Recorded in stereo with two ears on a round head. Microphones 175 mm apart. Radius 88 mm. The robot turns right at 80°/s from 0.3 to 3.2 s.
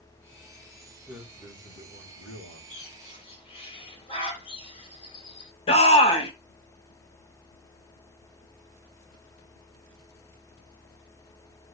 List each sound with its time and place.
1.1 s a man speaking: 15° right, 3 m; by 2.6 s 105° left, 3 m
2.7 s a bird: 70° left (ahead or behind), 3.5 m; by 5.5 s 30° left (ahead or behind), 3.5 m
5.7 s a shout: 30° left (ahead or behind), 2.5 m